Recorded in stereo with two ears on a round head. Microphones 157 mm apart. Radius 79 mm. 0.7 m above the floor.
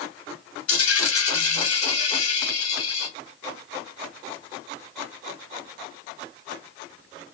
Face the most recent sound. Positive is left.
turn(degrees=80)